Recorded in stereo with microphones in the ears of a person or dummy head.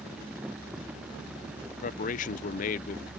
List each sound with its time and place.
1.7 s a man speaking: 45° left (ahead or behind)